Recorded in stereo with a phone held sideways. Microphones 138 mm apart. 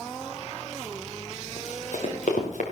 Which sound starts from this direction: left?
Running footsteps, at 1.6 s.